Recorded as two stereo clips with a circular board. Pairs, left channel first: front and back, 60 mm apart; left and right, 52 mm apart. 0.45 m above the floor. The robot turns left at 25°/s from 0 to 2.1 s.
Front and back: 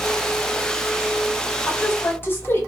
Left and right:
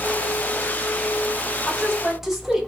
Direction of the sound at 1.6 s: 5° left.